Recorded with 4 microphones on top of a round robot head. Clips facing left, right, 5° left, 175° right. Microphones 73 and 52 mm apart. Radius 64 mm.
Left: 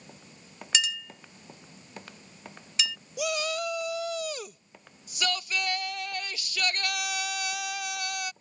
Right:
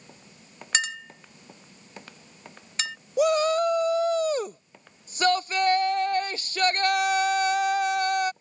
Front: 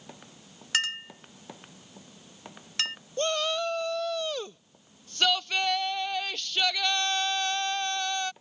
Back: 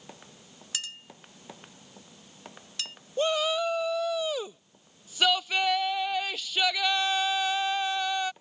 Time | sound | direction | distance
0.7 | a clink | 40° right | ?
3.2 | a shout | 95° right | ?